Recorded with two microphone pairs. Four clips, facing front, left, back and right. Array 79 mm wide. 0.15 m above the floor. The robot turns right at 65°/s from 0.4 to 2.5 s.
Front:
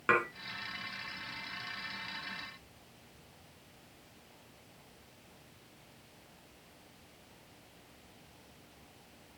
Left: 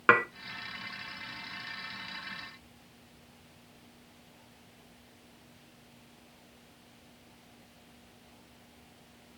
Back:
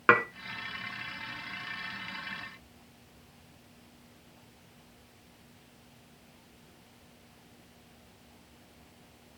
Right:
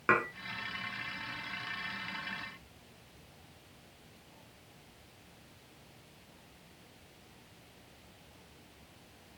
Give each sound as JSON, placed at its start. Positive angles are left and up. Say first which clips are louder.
{"t": 0.1, "sound": "dishes clattering", "louder": "left 5 dB, back 6 dB", "azimuth_deg": 140, "distance_m": 1.5}